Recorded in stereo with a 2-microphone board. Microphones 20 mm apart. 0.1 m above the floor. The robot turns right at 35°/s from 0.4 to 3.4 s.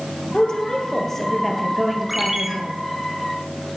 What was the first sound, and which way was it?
A woman speaking, 130° left.